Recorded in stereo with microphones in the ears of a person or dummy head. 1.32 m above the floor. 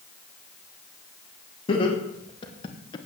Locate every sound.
1.7 s laughter: 30° left (ahead or behind), 2.5 m; by 3.0 s 25° left (ahead or behind), 1.1 m